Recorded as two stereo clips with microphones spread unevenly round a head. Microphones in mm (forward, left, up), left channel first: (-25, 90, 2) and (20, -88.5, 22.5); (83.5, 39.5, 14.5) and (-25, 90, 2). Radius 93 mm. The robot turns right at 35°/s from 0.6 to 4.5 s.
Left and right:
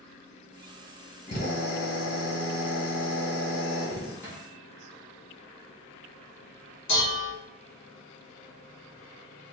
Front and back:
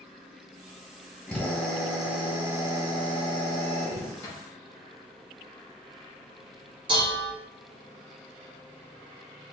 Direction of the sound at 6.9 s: 110° left.